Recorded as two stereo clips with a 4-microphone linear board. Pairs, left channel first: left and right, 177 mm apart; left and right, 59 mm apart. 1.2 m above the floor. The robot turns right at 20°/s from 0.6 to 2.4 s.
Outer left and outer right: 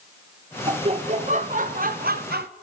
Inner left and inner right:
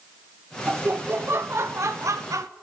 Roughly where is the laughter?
Behind right.